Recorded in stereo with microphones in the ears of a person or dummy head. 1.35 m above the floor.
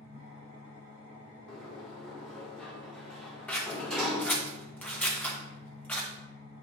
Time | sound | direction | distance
0.0 | an engine running | 45° right (ahead or behind) | 3 m
1.5 | a sliding door | centre (ahead or behind) | 1.9 m
3.5 | scissors | centre (ahead or behind) | 1.1 m